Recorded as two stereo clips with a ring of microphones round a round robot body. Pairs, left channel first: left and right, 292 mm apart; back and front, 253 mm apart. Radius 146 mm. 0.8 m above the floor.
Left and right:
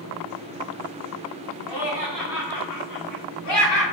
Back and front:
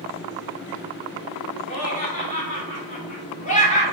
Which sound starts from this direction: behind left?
Laughter, at 1.7 s.